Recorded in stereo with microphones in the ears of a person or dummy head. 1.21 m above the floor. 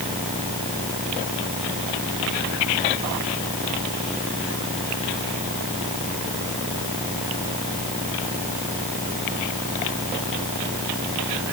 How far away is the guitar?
No guitar in this recording.